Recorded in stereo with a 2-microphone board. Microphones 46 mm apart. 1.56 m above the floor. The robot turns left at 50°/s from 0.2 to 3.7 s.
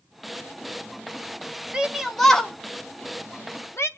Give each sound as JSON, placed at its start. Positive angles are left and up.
{"t": 1.7, "sound": "a shout", "side_deg": -20, "distance_m": 1.4}